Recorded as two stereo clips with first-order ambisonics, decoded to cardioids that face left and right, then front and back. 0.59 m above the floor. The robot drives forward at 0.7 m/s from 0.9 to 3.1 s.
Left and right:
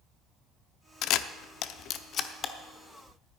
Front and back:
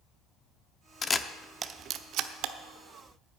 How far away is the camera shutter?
About 0.6 m.